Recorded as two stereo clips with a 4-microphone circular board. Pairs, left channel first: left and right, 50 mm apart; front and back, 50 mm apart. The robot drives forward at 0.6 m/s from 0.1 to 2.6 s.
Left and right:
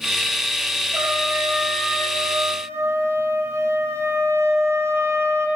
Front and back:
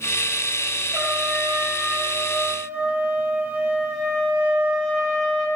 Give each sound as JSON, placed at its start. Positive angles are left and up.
{"t": 0.9, "sound": "a trumpet", "azimuth_deg": -105, "distance_m": 9.0}